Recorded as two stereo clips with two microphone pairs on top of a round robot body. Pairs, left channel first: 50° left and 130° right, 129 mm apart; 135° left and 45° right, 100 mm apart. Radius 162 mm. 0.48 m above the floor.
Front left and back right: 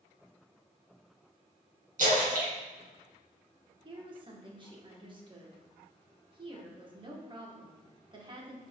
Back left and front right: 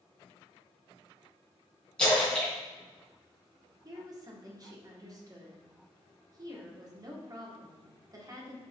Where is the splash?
145° right, 3 m.